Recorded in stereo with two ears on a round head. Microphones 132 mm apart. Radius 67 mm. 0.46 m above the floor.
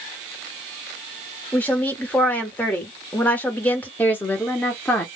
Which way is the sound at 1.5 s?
10° left (ahead or behind).